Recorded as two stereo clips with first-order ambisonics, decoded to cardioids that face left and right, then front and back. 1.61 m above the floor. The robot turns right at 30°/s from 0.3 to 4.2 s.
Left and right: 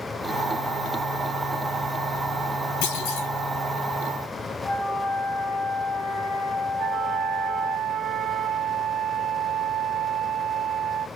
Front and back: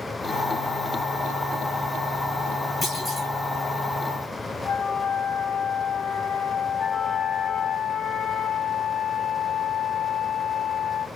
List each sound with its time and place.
2.8 s a clunk: 70° left, 3.5 m; by 3.3 s 85° left, 3.5 m
4.6 s a flute: 30° left, 1.3 m
6.8 s a flute: 60° right, 0.6 m